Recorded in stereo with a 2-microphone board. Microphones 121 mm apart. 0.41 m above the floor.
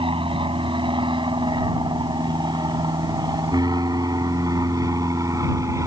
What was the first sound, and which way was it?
An aircraft, 45° right (ahead or behind).